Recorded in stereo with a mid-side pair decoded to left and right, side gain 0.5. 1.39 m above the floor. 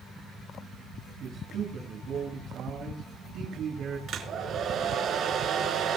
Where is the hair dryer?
55° right, 4.5 m.